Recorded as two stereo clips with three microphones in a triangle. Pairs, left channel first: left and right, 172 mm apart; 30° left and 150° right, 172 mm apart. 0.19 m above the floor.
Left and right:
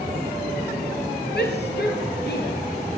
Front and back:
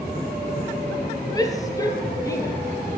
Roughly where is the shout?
Left.